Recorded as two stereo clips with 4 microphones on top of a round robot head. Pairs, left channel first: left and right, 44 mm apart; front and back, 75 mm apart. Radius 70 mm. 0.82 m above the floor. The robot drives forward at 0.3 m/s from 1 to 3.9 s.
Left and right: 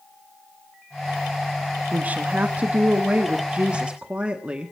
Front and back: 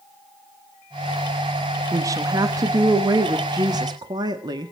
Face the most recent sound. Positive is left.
turn(degrees=-155)